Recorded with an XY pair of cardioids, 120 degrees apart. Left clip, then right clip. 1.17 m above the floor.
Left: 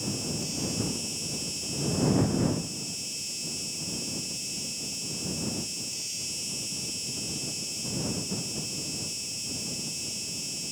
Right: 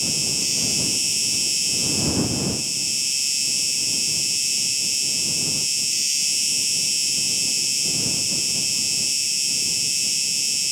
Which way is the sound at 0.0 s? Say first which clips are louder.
Right 10 dB; 65° right.